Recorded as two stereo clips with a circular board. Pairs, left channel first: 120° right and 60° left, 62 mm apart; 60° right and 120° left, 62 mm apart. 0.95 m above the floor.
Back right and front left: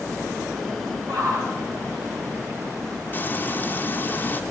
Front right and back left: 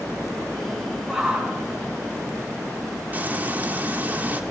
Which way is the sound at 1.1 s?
25° left.